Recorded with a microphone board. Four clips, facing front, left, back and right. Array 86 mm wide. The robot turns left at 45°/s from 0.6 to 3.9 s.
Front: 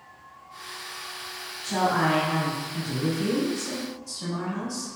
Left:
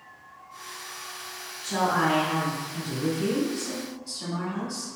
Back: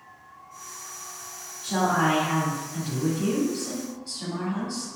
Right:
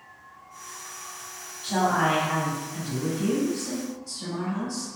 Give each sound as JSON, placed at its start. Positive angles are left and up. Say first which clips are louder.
{"t": 1.6, "sound": "a woman speaking", "louder": "right 1 dB, even", "azimuth_deg": -95, "distance_m": 1.6}